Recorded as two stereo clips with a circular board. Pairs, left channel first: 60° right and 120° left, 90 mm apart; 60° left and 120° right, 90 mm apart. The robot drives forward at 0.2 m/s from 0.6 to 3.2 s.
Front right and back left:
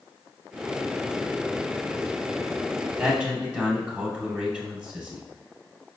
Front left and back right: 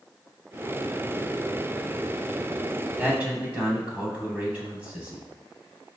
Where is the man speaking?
175° right, 1.0 m.